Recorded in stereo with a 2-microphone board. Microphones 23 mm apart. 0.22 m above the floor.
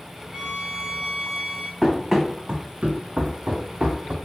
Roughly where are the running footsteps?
Centre.